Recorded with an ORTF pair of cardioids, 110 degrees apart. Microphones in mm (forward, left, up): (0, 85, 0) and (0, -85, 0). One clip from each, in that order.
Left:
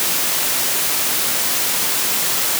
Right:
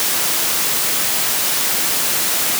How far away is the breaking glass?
I don't hear breaking glass.